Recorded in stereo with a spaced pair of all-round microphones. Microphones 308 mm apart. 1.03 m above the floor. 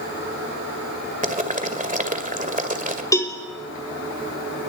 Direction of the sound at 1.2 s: 25° right (ahead or behind).